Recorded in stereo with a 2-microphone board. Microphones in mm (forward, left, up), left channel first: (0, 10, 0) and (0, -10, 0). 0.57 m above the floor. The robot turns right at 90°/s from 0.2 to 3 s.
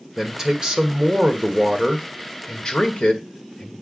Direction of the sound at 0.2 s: 175° right.